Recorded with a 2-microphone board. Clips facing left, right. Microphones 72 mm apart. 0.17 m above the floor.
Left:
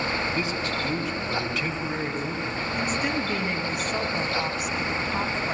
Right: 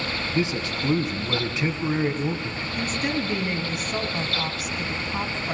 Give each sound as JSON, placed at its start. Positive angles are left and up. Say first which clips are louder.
{"t": 0.3, "sound": "a man speaking", "louder": "right 2 dB", "side_deg": -20, "distance_m": 2.0}
{"t": 2.8, "sound": "a woman speaking", "louder": "right 1 dB", "side_deg": 0, "distance_m": 1.6}